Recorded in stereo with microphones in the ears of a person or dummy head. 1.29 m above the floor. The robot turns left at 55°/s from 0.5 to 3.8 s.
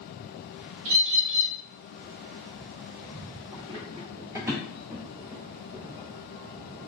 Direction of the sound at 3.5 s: 20° right (ahead or behind).